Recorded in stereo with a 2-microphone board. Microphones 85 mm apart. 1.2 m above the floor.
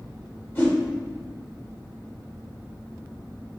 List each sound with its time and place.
0.6 s a whoosh: 30° left (ahead or behind), 1.0 m